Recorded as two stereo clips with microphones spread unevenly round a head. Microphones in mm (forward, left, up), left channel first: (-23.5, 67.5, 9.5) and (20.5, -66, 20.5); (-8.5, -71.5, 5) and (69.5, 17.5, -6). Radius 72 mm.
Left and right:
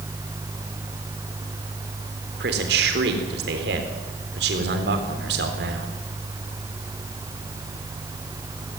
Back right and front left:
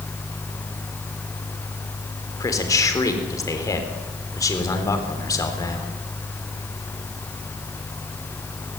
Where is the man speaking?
70° right, 4 m.